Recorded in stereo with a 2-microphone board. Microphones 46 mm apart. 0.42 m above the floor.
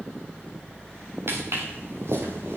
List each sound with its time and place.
1.3 s footsteps: 55° right (ahead or behind), 4 m; by 2.6 s 70° right (ahead or behind), 4 m